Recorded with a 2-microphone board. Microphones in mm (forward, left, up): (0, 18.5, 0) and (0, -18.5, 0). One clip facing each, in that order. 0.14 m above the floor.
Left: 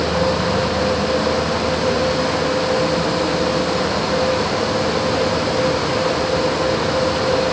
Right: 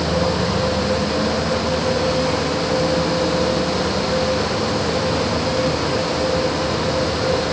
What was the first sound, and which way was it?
Only background noise.